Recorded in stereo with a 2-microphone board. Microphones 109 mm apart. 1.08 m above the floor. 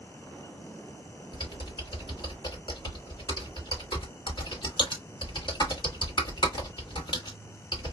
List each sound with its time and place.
1.3 s typing on a keyboard: 45° left (ahead or behind), 1.5 m